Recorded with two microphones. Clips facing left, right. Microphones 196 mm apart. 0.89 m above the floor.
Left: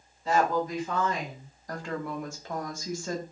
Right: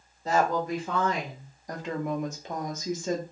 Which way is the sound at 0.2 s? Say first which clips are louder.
Even; 40° right (ahead or behind).